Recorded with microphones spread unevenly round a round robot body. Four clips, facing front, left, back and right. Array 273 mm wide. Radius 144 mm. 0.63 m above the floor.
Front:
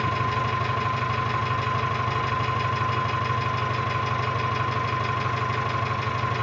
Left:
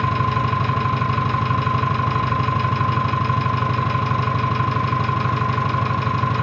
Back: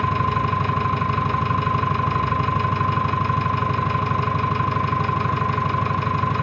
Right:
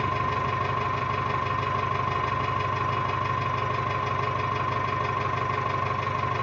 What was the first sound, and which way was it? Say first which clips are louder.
An engine running: left 6 dB, back 4 dB; 125° left.